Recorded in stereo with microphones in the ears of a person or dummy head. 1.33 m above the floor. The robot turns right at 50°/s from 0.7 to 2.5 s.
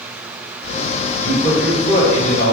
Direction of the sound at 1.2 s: 145° right.